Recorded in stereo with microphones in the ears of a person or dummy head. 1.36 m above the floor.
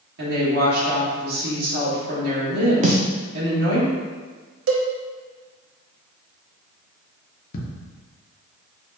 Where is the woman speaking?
65° right (ahead or behind), 2.0 m.